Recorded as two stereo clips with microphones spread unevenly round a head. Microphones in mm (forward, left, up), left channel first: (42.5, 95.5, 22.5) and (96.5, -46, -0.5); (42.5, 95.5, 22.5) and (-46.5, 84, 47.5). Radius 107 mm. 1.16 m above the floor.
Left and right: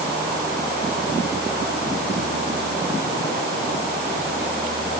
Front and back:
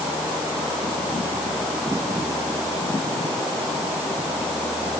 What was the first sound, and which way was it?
Only background noise.